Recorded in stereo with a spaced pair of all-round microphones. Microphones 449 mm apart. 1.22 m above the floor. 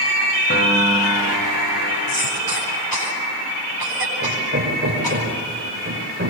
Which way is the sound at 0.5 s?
25° left (ahead or behind).